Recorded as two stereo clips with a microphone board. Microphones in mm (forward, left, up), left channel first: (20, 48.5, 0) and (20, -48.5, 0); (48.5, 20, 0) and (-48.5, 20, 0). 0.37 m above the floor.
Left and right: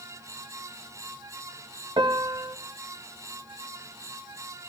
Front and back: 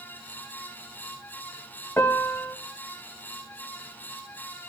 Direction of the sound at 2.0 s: 65° right.